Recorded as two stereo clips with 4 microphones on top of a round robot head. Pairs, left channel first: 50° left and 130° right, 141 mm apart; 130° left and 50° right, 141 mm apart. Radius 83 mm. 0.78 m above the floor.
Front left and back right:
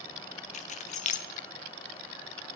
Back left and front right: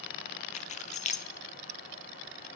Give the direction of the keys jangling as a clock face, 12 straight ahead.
9 o'clock.